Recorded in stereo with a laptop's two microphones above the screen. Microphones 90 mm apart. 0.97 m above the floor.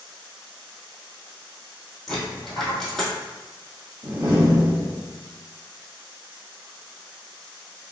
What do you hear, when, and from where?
2.1 s a dropped coin: 5° left (ahead or behind), 1.8 m
4.0 s a door slam: 50° right (ahead or behind), 1.5 m